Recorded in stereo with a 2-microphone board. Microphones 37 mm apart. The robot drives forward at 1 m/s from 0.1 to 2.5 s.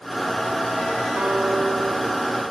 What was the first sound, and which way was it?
A guitar, 70° right (ahead or behind).